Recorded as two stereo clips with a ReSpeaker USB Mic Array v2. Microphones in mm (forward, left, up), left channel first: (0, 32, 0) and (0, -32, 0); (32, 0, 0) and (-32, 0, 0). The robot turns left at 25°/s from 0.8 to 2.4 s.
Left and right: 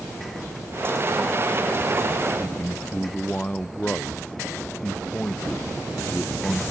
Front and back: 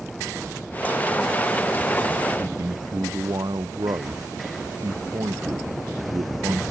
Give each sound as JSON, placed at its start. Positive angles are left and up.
{"t": 2.4, "sound": "a man speaking", "azimuth_deg": 165}